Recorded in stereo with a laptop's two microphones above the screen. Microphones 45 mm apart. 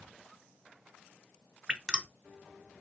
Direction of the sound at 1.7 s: 15° right (ahead or behind).